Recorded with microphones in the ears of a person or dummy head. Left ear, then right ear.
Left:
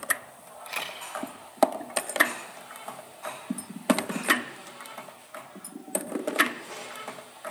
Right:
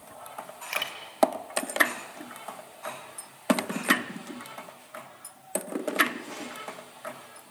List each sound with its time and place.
0.7 s a camera shutter: 20° right (ahead or behind), 3 m